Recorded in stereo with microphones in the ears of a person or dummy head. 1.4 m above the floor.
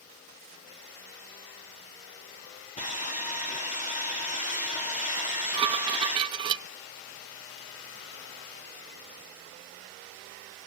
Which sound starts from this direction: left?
Sawing, at 2.8 s.